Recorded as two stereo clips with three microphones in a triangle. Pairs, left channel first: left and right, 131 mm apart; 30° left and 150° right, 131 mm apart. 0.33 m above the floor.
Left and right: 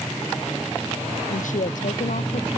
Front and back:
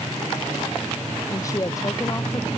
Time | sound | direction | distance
1.3 | a woman speaking | 95° left | ?